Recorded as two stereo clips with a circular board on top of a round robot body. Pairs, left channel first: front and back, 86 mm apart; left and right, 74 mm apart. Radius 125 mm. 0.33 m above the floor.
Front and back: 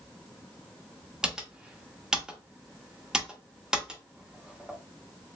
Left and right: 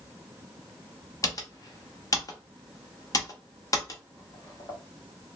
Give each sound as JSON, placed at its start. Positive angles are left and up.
{"t": 1.2, "sound": "typing on a keyboard", "azimuth_deg": 100, "distance_m": 1.1}